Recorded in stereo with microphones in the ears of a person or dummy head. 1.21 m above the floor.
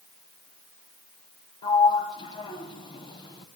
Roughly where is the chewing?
I don't hear chewing.